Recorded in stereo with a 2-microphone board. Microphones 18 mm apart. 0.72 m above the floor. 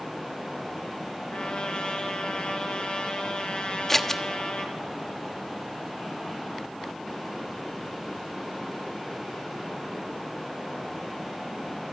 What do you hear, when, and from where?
1.3 s a trumpet: 70° left (ahead or behind), 4.5 m
3.9 s scissors: 20° left (ahead or behind), 1.1 m